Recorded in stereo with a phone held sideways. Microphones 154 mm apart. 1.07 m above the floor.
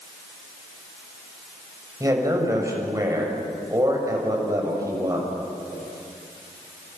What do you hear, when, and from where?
2.0 s a man speaking: 20° right (ahead or behind), 7 m